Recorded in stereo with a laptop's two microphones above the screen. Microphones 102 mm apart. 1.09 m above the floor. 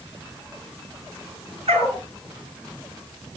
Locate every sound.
1.7 s a dog barking: 70° right (ahead or behind), 7.5 m